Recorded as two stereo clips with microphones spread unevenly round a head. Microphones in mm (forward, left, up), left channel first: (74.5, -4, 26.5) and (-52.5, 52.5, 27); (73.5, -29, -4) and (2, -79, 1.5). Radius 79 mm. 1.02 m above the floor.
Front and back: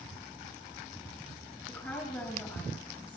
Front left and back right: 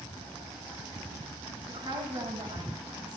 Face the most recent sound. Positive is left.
turn(degrees=-105)